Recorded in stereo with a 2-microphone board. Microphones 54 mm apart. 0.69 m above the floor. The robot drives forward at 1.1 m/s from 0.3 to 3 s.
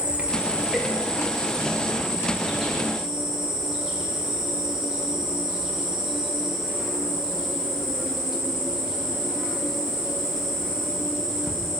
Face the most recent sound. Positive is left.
turn(degrees=-10)  # may be behind; listen again after turning